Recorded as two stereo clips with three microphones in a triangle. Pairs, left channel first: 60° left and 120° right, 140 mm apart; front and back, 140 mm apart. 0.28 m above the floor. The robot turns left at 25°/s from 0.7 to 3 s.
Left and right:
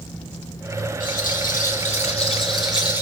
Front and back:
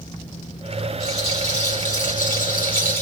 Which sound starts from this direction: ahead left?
A rattle, at 1.0 s.